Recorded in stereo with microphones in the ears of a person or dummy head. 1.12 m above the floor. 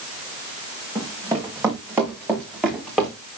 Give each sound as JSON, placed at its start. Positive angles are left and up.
{"t": 0.9, "sound": "running footsteps", "side_deg": -15, "distance_m": 5.5}